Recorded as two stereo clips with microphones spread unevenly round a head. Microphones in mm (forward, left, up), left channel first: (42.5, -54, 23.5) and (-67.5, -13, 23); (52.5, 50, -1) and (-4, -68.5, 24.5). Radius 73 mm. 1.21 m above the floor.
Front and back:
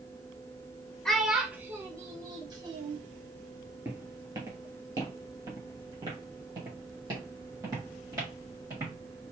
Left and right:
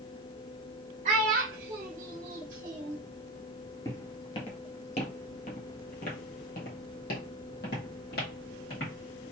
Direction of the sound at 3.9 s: 125° left.